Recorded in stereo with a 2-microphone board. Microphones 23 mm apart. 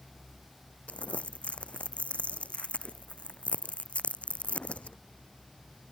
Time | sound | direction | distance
0.9 | crumpling | 65° left (ahead or behind) | ?